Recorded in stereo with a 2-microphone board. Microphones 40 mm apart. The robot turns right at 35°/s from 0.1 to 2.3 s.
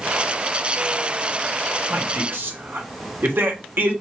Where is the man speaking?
70° right (ahead or behind), 1.2 m; by 3.9 s 65° right (ahead or behind), 1.2 m.